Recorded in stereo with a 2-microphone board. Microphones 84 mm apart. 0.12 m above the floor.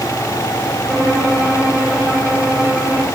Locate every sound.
0.9 s a violin: centre (ahead or behind), 5.5 m